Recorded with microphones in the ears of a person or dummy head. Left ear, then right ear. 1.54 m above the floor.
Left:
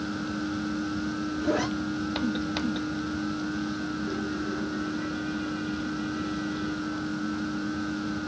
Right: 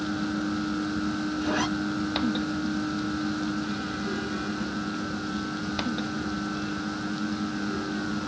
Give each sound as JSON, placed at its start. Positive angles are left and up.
{"t": 1.4, "sound": "a zipper", "side_deg": -30, "distance_m": 2.5}